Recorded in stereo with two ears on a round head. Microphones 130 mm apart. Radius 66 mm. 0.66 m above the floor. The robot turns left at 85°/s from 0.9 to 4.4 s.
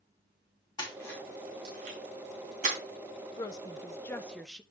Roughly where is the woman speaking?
Left.